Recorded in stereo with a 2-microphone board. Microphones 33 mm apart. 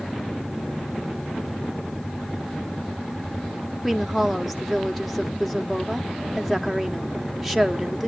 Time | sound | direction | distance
3.8 | a woman speaking | centre (ahead or behind) | 1.3 m